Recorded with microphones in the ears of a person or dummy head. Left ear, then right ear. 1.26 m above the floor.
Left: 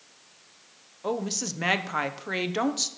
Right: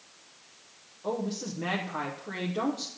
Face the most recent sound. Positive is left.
turn(degrees=50)  # may be behind; listen again after turning